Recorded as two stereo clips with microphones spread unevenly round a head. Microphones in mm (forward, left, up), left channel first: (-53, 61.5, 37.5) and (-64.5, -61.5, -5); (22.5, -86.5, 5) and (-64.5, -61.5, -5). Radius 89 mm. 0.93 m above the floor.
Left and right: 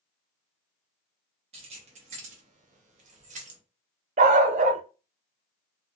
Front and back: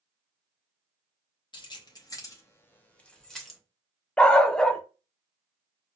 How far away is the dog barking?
About 0.5 m.